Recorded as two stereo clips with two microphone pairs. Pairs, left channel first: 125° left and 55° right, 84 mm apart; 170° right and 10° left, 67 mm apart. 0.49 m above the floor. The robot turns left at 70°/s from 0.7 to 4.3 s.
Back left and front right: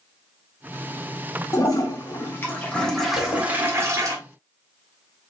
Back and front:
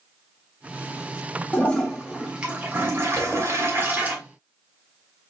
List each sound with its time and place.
1.5 s a toilet flushing: 140° left, 1.4 m; by 4.2 s 45° right, 1.4 m
3.2 s a zipper: 120° left, 1.7 m; by 3.4 s 105° left, 1.7 m